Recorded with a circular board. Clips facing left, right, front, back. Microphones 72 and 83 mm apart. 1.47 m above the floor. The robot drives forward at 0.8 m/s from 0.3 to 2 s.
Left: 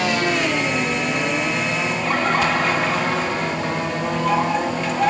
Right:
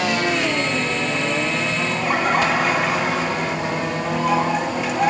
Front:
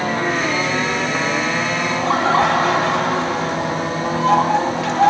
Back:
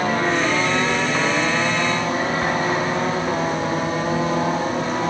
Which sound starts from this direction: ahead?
Laughter, at 1.9 s.